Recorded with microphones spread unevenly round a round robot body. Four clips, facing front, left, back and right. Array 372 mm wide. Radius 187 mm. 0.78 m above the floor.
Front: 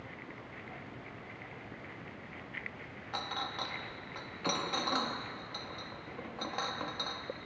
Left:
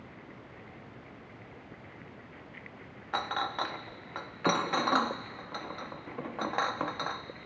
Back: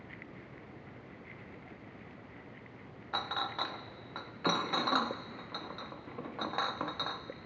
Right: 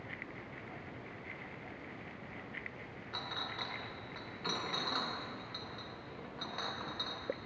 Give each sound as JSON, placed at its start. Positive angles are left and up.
{"t": 3.1, "sound": "a clink", "azimuth_deg": 105, "distance_m": 0.9}